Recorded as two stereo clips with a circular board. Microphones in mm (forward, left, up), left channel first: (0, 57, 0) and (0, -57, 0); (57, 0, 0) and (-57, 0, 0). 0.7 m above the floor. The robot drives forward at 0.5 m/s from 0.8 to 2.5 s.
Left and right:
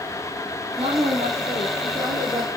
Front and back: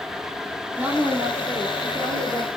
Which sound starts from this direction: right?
A woman speaking, at 0.8 s.